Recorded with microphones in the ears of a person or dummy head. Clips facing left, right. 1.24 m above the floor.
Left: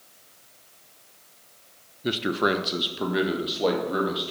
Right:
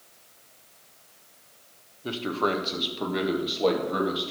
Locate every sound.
2.0 s a man speaking: 25° left (ahead or behind), 0.8 m; by 4.3 s 5° left (ahead or behind), 2.5 m